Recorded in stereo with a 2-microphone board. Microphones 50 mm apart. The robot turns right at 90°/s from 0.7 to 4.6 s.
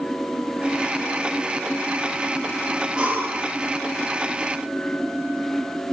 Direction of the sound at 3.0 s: 160° right.